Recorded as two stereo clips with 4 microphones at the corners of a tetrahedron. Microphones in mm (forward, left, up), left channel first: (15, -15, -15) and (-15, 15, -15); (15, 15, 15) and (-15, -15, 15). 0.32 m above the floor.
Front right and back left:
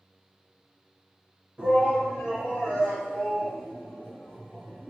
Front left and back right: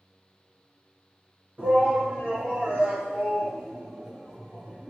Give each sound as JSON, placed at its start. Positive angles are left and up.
{"t": 1.6, "sound": "a shout", "azimuth_deg": -175, "distance_m": 1.6}